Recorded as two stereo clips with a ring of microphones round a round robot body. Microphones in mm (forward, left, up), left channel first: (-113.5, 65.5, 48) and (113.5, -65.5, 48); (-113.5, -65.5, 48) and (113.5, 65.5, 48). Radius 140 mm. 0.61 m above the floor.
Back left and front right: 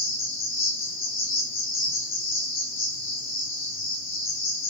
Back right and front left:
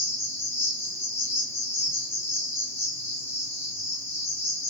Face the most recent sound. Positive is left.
turn(degrees=135)